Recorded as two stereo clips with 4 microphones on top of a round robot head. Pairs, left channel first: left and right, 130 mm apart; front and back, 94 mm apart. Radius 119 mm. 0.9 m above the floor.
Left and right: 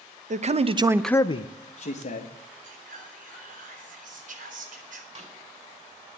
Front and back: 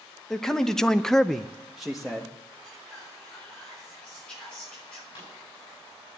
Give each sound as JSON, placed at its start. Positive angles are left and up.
{"t": 0.3, "sound": "a man speaking", "azimuth_deg": -85, "distance_m": 1.1}
{"t": 2.6, "sound": "whispering", "azimuth_deg": -80, "distance_m": 3.0}
{"t": 5.2, "sound": "a snare drum", "azimuth_deg": -55, "distance_m": 7.0}